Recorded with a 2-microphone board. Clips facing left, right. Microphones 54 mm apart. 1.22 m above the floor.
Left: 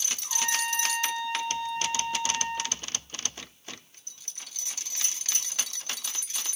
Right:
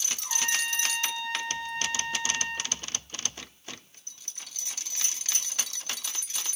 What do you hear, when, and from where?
0.2 s a trumpet: 85° right, 3.5 m